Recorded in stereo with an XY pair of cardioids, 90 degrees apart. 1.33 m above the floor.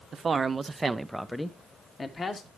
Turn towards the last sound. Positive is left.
turn(degrees=45)